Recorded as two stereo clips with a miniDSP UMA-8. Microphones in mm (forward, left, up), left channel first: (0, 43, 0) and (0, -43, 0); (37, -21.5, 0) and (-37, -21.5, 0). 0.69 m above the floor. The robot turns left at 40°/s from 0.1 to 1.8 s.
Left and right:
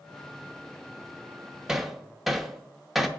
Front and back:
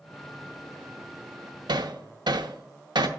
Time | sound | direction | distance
1.7 | hammering | 170° right | 0.7 m